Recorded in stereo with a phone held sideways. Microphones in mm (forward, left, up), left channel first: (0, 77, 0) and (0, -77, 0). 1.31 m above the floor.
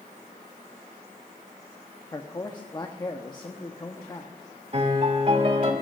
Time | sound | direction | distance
2.1 | a man speaking | 25° left (ahead or behind) | 1.0 m
4.7 | a piano | 45° right (ahead or behind) | 2.5 m